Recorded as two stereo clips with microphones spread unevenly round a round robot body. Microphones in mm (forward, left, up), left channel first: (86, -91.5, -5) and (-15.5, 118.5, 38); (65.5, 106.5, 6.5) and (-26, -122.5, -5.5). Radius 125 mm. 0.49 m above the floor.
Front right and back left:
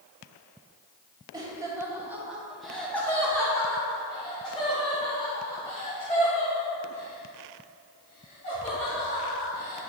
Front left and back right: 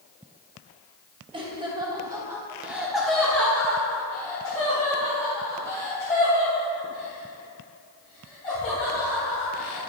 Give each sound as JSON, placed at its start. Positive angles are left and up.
{"t": 1.3, "sound": "laughter", "azimuth_deg": -165, "distance_m": 1.3}